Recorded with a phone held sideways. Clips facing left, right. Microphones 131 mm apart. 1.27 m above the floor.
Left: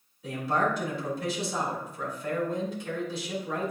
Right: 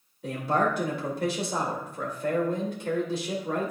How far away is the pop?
I don't hear a pop.